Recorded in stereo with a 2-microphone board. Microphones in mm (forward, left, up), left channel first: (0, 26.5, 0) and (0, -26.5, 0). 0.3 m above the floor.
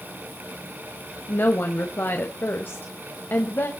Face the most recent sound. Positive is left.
turn(degrees=45)  # may be behind; listen again after turning